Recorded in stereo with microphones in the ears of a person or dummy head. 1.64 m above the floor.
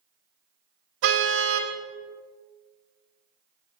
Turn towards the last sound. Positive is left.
turn(degrees=-75)  # may be behind; listen again after turning